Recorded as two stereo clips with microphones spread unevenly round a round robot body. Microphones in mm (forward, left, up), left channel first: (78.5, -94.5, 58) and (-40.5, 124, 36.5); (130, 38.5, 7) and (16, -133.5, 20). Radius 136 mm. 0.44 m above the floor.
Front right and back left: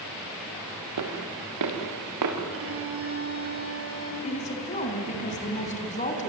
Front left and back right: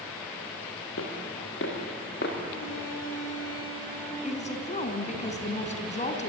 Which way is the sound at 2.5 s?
90° left.